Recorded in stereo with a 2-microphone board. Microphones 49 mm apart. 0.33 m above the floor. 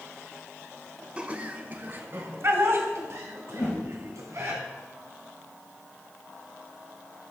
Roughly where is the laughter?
Right.